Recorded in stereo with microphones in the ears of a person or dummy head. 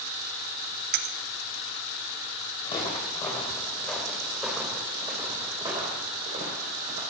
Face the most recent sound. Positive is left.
turn(degrees=-40)  # may be behind; listen again after turning